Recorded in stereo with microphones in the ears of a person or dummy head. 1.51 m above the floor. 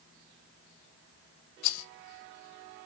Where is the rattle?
85° left, 1.1 m.